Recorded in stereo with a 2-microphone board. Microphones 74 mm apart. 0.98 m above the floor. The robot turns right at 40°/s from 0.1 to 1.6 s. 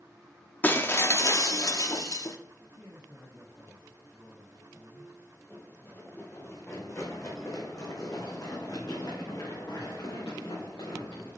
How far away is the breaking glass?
About 0.6 m.